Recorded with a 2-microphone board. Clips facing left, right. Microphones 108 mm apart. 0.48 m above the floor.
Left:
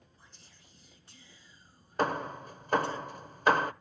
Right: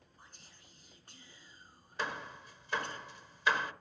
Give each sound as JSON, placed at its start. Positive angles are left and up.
{"t": 0.2, "sound": "whispering", "side_deg": -50, "distance_m": 6.5}
{"t": 2.0, "sound": "hammering", "side_deg": 45, "distance_m": 0.7}